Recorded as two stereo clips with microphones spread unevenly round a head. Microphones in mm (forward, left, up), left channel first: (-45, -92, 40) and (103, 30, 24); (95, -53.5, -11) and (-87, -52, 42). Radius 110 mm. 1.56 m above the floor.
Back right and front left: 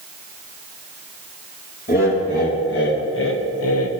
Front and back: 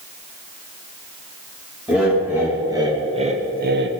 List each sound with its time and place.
1.9 s laughter: 95° right, 3 m; by 3.9 s 155° right, 1.3 m